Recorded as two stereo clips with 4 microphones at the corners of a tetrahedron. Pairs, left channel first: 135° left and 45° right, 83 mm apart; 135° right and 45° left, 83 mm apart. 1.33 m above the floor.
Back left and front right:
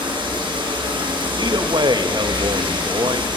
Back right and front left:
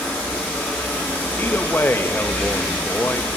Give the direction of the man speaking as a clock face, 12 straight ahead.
2 o'clock.